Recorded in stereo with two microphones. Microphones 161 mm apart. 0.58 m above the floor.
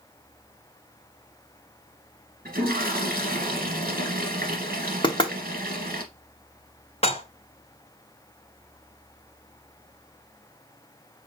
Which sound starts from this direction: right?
A toilet flushing, at 2.5 s.